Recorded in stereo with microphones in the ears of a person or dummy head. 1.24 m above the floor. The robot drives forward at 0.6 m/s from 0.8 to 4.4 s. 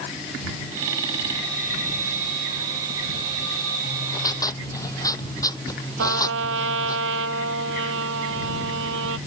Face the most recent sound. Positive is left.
turn(degrees=-70)  # may be behind; listen again after turning